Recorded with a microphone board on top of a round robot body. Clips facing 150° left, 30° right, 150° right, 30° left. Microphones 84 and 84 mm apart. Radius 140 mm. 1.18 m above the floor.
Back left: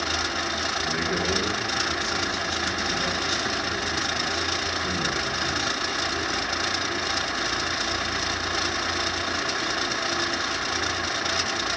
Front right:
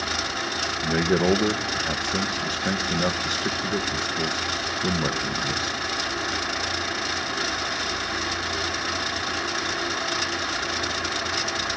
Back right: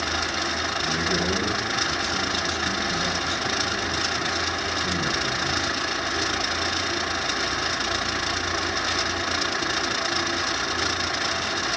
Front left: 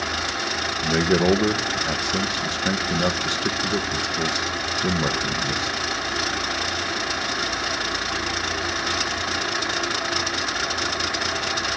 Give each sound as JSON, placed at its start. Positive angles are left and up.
{"t": 0.8, "sound": "a man speaking", "azimuth_deg": 5, "distance_m": 1.3}